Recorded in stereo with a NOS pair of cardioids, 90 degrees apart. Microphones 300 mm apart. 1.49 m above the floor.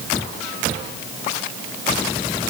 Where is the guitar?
I don't hear a guitar.